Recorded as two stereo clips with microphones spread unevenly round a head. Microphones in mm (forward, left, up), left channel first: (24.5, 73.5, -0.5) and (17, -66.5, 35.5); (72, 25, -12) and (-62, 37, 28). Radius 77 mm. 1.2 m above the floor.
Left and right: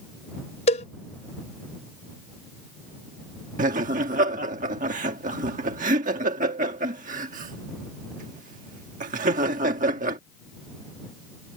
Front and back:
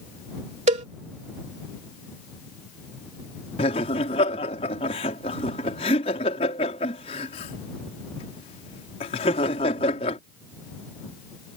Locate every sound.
0.7 s a cowbell: 140° left
3.6 s laughter: 60° right